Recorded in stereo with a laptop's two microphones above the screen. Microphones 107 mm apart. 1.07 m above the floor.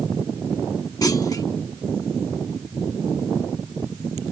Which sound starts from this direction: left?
A clunk, at 1.0 s.